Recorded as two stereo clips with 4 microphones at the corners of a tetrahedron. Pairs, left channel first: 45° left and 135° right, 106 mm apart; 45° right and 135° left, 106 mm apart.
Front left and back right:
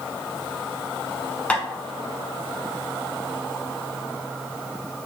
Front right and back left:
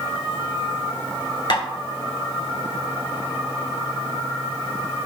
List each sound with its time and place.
1.5 s tapping: 30° right, 0.8 m